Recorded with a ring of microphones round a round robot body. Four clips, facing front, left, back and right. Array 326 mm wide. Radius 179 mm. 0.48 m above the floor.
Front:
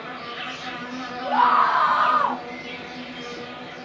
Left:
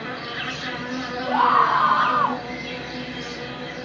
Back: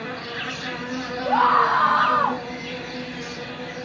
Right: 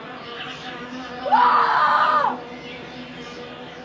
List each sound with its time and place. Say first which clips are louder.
0.0 s an insect: left 3 dB, back 2 dB; 130° left, 1.0 m
1.2 s a scream: right 2 dB, even; 90° right, 2 m